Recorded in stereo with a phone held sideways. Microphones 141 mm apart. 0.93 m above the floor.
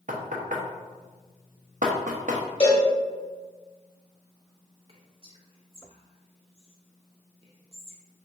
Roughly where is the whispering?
Right.